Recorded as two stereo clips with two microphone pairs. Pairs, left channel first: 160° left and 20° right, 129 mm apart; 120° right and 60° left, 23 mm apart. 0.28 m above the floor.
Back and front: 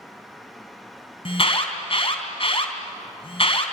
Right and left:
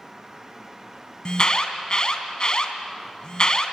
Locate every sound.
1.2 s an alarm: 165° right, 3 m